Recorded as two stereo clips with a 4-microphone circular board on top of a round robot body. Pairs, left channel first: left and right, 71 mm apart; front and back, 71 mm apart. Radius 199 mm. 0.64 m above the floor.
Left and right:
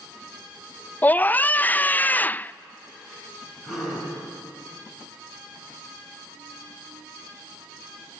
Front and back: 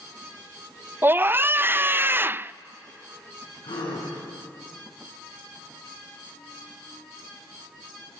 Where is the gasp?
5° right, 8 m.